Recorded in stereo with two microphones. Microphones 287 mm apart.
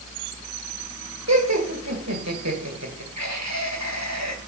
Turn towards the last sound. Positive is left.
turn(degrees=-65)  # may be behind; listen again after turning